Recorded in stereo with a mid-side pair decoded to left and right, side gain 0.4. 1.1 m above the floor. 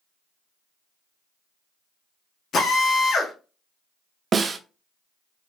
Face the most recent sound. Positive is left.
turn(degrees=-45)